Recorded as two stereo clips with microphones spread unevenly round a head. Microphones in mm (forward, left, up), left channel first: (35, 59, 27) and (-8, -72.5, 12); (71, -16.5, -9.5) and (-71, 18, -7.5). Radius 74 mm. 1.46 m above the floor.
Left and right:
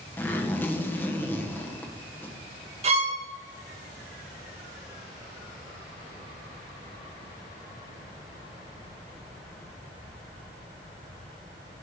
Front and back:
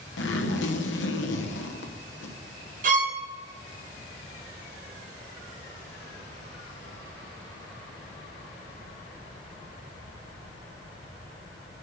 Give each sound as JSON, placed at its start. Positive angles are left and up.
{"t": 0.2, "sound": "a zipper", "azimuth_deg": -5, "distance_m": 1.2}
{"t": 2.8, "sound": "a violin", "azimuth_deg": -155, "distance_m": 1.3}